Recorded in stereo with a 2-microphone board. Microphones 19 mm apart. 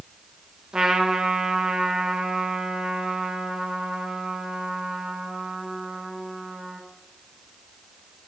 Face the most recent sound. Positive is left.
turn(degrees=-40)  # may be behind; listen again after turning